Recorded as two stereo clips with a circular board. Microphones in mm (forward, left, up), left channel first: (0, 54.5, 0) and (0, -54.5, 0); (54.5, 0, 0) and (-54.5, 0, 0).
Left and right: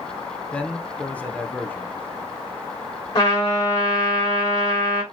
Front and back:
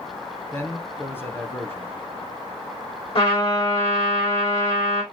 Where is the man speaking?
35° left, 1.1 m.